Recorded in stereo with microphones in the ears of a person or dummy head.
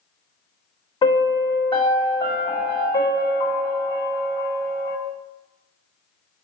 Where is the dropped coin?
I don't hear a dropped coin.